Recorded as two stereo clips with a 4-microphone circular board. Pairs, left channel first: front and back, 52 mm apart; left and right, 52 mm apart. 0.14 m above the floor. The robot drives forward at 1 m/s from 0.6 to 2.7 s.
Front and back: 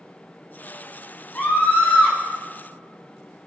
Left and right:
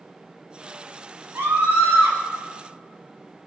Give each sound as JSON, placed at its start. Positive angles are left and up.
{"t": 1.4, "sound": "a scream", "azimuth_deg": -50, "distance_m": 6.5}